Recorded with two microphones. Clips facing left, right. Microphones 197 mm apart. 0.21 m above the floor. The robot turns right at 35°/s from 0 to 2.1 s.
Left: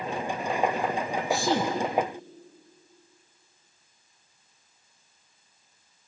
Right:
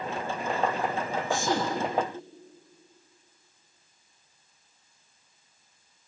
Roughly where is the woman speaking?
Left.